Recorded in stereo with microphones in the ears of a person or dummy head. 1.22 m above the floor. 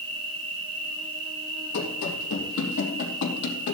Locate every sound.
0.0 s an insect: 30° right (ahead or behind), 2.5 m
1.7 s running footsteps: 65° left (ahead or behind), 3 m; by 3.8 s 60° left (ahead or behind), 3 m